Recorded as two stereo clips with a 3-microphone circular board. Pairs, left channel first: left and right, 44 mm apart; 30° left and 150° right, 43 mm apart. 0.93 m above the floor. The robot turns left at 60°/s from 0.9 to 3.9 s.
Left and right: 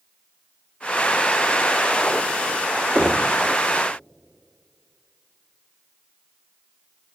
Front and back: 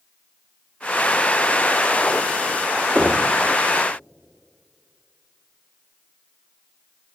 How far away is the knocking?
About 2 m.